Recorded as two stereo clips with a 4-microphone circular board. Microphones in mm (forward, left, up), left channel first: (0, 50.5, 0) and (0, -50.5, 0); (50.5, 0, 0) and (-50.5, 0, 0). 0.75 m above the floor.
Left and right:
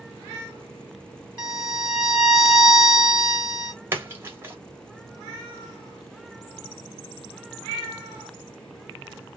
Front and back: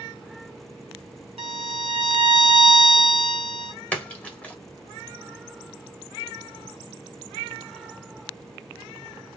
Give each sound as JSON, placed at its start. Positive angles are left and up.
{"t": 1.4, "sound": "a violin", "azimuth_deg": 155, "distance_m": 1.5}
{"t": 3.9, "sound": "a splash", "azimuth_deg": -60, "distance_m": 1.1}